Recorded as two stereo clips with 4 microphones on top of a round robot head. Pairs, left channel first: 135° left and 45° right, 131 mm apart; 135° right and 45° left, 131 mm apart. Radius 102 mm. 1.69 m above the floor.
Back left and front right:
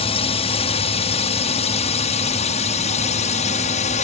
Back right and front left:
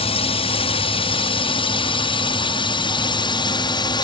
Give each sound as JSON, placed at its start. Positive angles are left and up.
{"t": 0.0, "sound": "a drone", "azimuth_deg": 180}